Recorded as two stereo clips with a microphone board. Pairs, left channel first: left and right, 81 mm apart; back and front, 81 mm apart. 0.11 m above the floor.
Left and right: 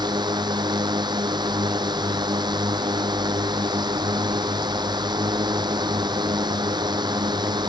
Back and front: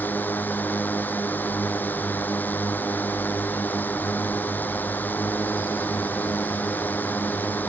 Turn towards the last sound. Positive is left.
turn(degrees=-110)